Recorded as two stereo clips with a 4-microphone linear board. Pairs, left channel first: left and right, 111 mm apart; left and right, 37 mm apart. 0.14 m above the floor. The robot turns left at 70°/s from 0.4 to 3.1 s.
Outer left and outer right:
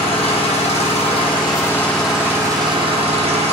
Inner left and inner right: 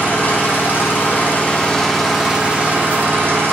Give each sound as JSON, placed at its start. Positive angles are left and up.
{"t": 0.0, "sound": "an engine running", "azimuth_deg": 115, "distance_m": 1.4}